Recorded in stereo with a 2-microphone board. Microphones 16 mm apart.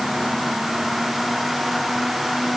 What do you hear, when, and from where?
Only background noise.